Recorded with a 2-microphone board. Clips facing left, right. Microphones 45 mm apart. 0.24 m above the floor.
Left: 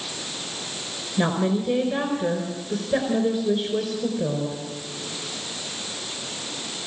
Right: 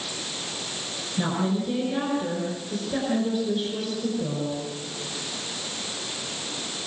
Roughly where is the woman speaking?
Left.